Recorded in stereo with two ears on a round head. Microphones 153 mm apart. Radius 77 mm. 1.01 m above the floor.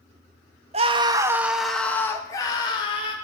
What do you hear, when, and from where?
0.7 s a scream: 40° right (ahead or behind), 1.8 m; by 3.1 s 30° left (ahead or behind), 3.5 m